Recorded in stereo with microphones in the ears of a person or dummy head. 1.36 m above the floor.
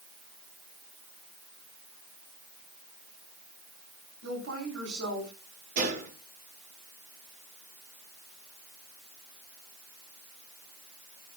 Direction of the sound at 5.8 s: 45° right (ahead or behind).